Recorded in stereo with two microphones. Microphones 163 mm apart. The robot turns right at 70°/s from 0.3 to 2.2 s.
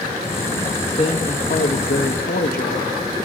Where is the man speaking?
25° left, 1.8 m; by 3.0 s 115° left, 1.8 m.